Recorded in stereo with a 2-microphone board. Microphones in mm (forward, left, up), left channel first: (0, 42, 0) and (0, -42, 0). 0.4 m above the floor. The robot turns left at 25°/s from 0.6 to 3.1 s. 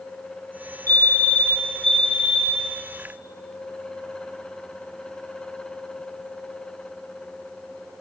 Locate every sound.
0.9 s a fire alarm: 30° left, 3.5 m; by 2.6 s 15° right, 3.5 m